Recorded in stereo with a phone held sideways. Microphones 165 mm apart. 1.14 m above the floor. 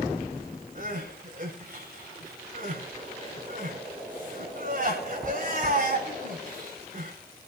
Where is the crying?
55° right (ahead or behind), 7.5 m.